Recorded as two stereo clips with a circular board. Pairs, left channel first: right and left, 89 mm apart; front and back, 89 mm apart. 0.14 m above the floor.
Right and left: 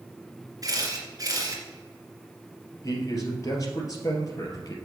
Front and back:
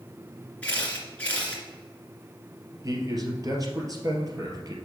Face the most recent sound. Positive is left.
turn(degrees=-135)